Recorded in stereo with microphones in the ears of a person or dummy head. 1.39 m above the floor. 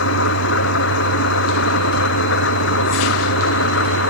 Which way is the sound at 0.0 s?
60° left (ahead or behind).